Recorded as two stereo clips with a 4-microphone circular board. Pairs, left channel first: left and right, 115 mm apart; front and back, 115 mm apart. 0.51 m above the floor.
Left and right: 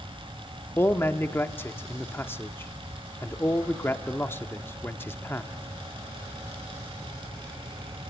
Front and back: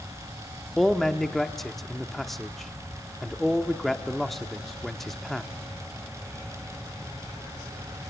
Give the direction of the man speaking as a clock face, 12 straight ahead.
9 o'clock.